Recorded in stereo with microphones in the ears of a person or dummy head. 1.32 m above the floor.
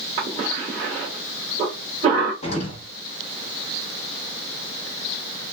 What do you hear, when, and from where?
0.2 s a cough: 45° right (ahead or behind), 1.2 m
2.4 s an explosion: 40° left (ahead or behind), 1.1 m